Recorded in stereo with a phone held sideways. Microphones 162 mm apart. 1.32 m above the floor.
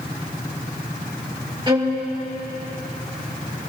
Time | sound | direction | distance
1.7 | a violin | 30° right (ahead or behind) | 2.5 m